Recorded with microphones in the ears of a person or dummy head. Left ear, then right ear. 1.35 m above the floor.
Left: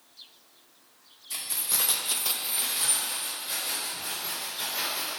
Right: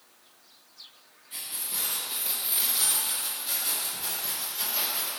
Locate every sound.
1.3 s keys jangling: 70° left (ahead or behind), 1.4 m; by 5.1 s 40° right (ahead or behind), 4.5 m